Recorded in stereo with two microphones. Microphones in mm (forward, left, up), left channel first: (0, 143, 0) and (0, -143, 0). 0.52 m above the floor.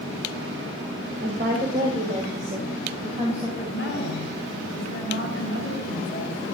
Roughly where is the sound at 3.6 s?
Left.